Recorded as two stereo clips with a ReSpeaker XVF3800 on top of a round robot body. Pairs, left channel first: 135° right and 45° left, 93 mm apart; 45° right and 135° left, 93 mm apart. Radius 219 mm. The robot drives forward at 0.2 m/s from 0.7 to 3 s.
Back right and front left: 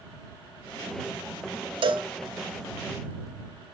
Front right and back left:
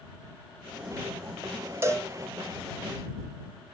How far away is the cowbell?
About 0.6 m.